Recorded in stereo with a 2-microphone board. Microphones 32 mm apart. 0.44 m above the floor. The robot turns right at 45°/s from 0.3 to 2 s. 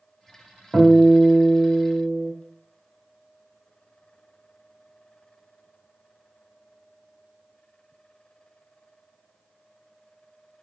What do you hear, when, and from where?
0.7 s a guitar: 155° left, 1.2 m; by 2.3 s 145° right, 1.2 m